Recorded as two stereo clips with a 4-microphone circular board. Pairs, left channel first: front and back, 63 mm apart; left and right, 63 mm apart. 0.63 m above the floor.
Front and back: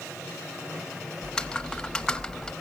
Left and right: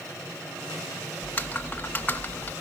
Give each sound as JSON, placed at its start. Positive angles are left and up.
{"t": 1.2, "sound": "typing on a keyboard", "azimuth_deg": 70, "distance_m": 0.9}